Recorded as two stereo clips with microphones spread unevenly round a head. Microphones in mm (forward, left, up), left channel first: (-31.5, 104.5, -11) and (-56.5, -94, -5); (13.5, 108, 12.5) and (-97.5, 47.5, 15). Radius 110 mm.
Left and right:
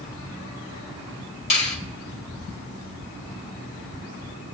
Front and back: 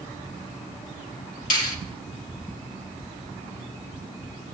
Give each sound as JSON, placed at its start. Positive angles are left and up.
{"t": 1.5, "sound": "a finger snap", "azimuth_deg": 20, "distance_m": 1.3}